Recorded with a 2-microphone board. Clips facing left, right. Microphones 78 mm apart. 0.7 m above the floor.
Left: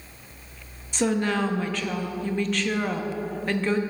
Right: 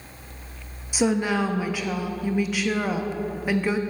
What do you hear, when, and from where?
0.9 s a woman speaking: 10° right (ahead or behind), 0.6 m